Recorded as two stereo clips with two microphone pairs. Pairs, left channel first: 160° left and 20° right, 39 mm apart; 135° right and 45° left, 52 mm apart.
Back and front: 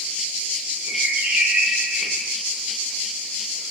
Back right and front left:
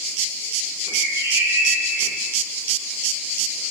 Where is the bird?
30° left, 2 m.